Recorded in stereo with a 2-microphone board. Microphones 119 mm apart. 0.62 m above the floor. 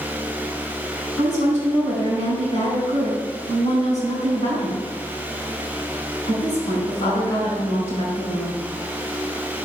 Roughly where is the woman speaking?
Left.